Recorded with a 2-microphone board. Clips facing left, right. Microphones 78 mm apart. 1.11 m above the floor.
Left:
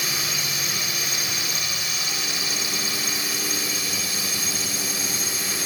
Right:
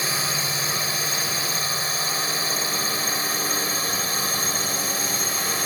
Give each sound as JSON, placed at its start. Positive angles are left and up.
{"t": 0.0, "sound": "a drone", "side_deg": -35}